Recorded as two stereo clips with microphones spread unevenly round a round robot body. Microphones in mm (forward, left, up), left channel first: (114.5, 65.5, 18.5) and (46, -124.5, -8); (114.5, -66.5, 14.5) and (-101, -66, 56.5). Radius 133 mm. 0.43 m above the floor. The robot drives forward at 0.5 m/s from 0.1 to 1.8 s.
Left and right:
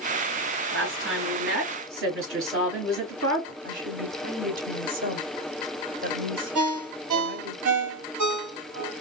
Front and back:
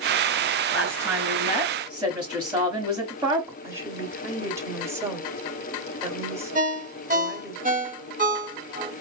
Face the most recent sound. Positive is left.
turn(degrees=-120)